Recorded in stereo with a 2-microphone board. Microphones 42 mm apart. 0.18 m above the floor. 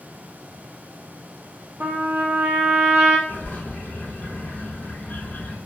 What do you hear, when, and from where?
1.8 s a trumpet: 50° right (ahead or behind), 0.8 m
3.3 s a bird: 40° left (ahead or behind), 0.7 m